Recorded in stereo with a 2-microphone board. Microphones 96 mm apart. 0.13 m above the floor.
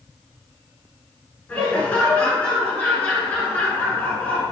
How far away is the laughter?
About 1.3 m.